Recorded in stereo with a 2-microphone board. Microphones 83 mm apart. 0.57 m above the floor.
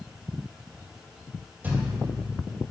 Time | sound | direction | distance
1.6 | a thud | 20° right (ahead or behind) | 2.5 m